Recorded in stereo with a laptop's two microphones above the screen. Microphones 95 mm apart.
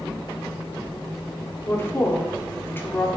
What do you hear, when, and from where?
1.6 s a woman speaking: 25° left (ahead or behind), 0.6 m